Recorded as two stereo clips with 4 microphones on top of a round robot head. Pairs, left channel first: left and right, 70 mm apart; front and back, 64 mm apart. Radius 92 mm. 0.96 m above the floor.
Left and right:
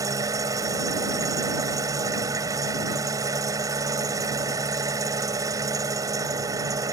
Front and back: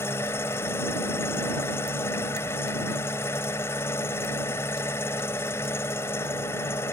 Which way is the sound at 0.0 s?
55° right.